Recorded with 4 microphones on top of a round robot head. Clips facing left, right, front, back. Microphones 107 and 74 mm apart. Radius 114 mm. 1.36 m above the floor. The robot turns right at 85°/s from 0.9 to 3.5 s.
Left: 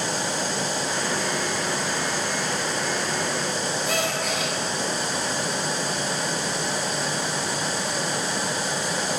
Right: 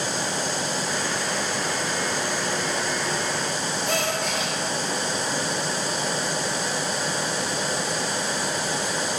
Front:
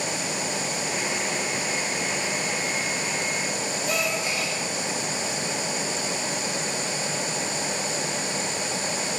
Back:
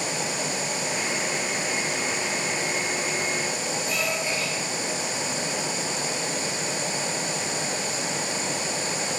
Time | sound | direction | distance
3.9 | a gasp | 5° left | 2.5 m